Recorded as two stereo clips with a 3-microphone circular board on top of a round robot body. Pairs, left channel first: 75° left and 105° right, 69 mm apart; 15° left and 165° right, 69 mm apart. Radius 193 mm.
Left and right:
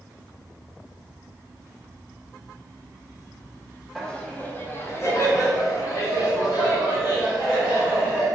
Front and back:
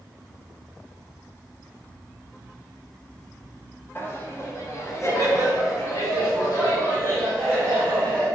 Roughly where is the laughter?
Ahead.